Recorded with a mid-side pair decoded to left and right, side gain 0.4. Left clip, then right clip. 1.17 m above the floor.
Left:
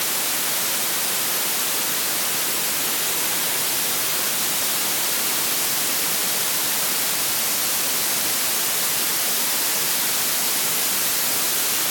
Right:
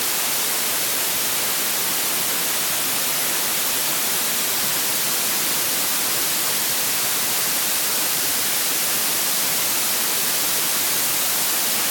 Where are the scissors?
I don't hear scissors.